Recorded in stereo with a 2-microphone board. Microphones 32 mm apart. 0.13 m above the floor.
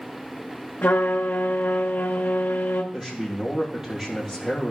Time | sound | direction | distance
0.8 | a trumpet | 80° left | 1.5 m
2.9 | a man speaking | 20° right (ahead or behind) | 3.5 m